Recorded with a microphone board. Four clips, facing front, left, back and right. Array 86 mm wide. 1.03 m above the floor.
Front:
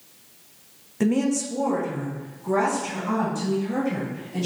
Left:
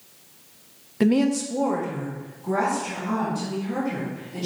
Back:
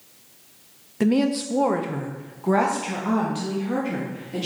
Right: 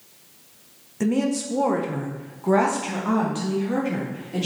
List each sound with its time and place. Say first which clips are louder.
1.0 s a woman speaking: left 3 dB, back 2 dB; 105° left, 0.6 m; by 4.5 s 135° right, 2.5 m